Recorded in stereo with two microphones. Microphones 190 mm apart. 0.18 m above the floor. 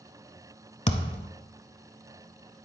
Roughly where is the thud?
Left.